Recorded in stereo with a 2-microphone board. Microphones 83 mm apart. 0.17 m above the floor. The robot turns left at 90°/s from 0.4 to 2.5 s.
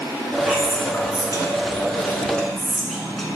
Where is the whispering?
5° right (ahead or behind), 1.7 m; by 3.3 s centre (ahead or behind), 1.7 m.